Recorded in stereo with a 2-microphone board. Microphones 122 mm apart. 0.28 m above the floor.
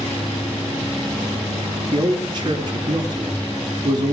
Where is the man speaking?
40° right (ahead or behind), 3.5 m.